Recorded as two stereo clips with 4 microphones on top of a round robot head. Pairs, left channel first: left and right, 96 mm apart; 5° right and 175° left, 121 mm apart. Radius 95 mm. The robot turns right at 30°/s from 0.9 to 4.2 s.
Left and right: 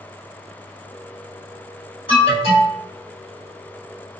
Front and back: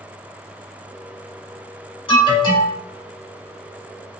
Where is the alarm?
40° left, 1.9 m; by 2.8 s 60° left, 1.9 m.